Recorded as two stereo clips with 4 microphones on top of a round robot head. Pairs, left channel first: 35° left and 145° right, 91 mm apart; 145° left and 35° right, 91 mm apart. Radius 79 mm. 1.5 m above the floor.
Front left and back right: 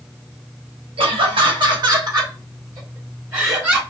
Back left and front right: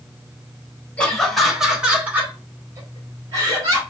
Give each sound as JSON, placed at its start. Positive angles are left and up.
{"t": 1.0, "sound": "laughter", "azimuth_deg": -135, "distance_m": 1.5}